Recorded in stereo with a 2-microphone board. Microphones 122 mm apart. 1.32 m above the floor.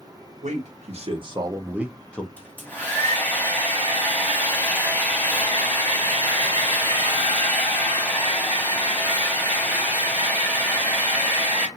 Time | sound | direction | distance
0.4 | a man speaking | 70° right (ahead or behind) | 1.1 m
2.4 | a hair dryer | 15° left (ahead or behind) | 1.3 m